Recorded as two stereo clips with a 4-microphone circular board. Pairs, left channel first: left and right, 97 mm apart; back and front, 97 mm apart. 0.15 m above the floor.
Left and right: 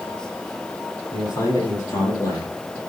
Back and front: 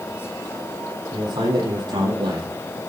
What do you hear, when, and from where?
1.1 s a man speaking: 35° left, 7 m; by 2.8 s 30° left, 5.5 m